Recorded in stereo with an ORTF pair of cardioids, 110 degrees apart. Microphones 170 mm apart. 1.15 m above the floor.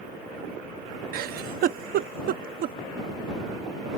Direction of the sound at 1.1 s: 65° right.